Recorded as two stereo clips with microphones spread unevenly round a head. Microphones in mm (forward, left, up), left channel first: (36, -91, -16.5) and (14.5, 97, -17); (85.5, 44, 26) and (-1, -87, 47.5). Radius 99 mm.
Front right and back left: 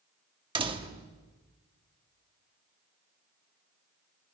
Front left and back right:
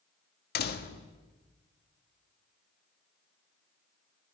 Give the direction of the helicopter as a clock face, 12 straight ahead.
I don't hear a helicopter.